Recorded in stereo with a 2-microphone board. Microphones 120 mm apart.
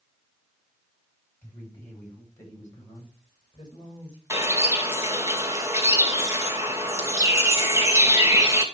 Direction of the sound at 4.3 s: 25° right (ahead or behind).